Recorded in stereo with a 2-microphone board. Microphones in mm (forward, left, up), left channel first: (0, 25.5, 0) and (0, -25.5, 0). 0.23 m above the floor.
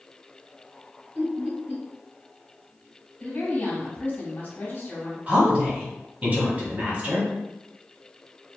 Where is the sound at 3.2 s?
40° left (ahead or behind), 1.9 m.